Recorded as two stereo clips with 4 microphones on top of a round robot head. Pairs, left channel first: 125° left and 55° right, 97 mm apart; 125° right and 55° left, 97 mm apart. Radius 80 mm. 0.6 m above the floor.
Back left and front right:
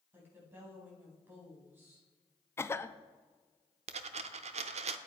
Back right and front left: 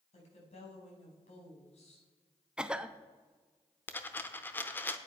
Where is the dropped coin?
55° right, 0.7 m.